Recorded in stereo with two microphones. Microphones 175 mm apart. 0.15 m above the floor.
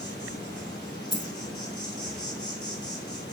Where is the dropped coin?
25° left (ahead or behind), 0.8 m.